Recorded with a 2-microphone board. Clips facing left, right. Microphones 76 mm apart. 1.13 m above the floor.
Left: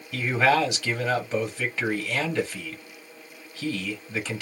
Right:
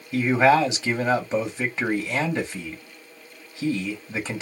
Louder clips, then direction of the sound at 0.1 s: Right 4 dB; 25° right (ahead or behind).